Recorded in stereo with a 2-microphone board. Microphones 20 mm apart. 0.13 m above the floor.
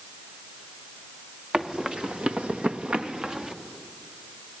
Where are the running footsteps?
40° right (ahead or behind), 2.5 m.